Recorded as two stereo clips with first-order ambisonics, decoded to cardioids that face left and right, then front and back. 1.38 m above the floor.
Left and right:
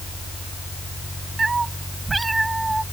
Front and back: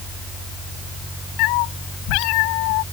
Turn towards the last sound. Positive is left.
turn(degrees=-5)